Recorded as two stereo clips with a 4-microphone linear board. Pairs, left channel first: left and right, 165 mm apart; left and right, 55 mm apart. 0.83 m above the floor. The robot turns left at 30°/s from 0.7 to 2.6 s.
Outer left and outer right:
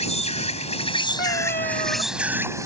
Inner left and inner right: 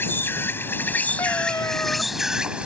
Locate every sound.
0.0 s an insect: 40° left; by 2.7 s 20° right
1.2 s a cat meowing: 60° left (ahead or behind); by 2.0 s 40° left (ahead or behind)